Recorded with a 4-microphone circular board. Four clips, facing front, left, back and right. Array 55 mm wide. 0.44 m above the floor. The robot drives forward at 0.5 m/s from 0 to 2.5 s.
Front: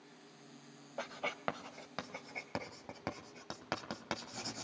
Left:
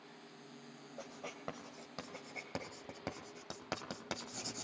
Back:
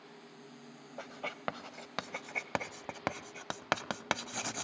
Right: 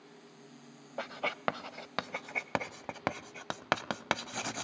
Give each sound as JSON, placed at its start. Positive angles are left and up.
{"t": 1.0, "sound": "writing", "azimuth_deg": -75, "distance_m": 0.9}